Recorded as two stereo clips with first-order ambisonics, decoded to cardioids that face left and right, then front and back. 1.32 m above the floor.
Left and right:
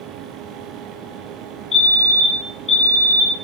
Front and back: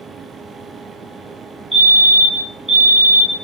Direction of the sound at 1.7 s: 105° left.